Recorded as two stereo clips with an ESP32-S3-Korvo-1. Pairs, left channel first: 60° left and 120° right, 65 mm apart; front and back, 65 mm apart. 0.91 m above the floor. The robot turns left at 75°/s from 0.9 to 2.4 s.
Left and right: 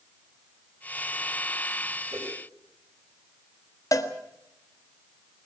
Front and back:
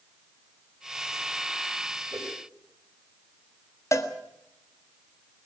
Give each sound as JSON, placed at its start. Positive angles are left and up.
{"t": 2.1, "sound": "a whoosh", "azimuth_deg": -150, "distance_m": 4.5}
{"t": 3.9, "sound": "a cowbell", "azimuth_deg": 35, "distance_m": 1.6}